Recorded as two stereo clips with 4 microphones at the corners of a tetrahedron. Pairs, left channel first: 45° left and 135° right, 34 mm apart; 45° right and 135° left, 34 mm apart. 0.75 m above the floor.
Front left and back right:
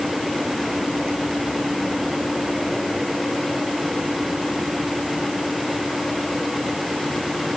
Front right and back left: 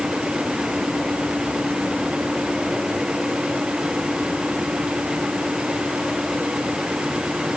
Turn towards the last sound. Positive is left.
No sound to turn to.